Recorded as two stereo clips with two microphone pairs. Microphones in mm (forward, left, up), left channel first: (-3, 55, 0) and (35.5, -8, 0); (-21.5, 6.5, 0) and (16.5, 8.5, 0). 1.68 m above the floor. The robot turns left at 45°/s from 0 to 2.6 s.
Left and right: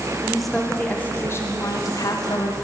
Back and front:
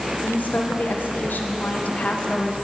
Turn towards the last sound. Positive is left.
turn(degrees=110)